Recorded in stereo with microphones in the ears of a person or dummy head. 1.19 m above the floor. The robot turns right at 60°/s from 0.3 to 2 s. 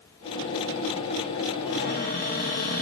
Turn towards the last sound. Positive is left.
turn(degrees=45)  # may be behind; listen again after turning